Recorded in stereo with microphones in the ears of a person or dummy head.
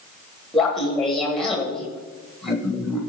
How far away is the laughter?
About 1.4 m.